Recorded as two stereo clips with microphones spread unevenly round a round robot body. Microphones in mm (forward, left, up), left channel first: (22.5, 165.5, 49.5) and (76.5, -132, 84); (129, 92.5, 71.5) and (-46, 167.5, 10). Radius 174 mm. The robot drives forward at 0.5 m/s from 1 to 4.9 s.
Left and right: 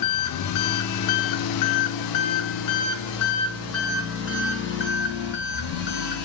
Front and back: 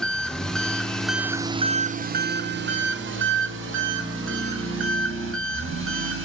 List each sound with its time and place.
0.0 s an engine running: 65° left, 0.7 m; by 6.3 s 160° left, 1.8 m